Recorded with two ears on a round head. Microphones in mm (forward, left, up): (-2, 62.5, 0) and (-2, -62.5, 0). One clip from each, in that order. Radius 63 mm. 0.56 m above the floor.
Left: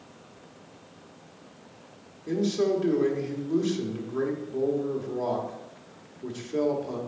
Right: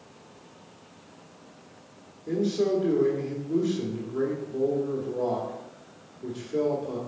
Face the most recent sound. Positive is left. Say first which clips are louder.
# even
turn(degrees=50)  # may be behind; listen again after turning